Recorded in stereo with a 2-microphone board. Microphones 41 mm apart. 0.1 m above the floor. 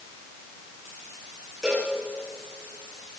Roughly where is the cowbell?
Centre.